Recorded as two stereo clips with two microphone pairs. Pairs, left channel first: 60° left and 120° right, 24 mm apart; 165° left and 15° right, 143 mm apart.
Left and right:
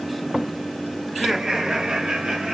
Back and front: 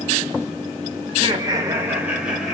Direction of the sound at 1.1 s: 40° right.